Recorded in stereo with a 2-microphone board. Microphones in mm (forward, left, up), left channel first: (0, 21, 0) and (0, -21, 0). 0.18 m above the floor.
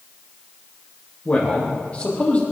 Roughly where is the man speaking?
Left.